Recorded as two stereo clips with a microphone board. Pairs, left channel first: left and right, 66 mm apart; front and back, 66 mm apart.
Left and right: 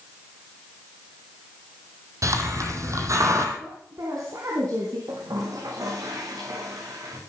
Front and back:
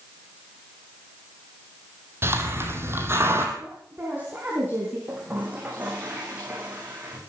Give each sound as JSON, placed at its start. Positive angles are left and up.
{"t": 2.2, "sound": "a hiss", "azimuth_deg": -125, "distance_m": 3.0}
{"t": 3.6, "sound": "a woman speaking", "azimuth_deg": -120, "distance_m": 4.0}
{"t": 5.1, "sound": "a toilet flushing", "azimuth_deg": -115, "distance_m": 5.5}